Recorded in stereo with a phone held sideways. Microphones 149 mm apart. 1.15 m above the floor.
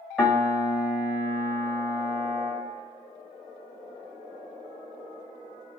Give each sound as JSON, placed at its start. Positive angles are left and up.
{"t": 0.2, "sound": "a piano", "side_deg": 0, "distance_m": 1.8}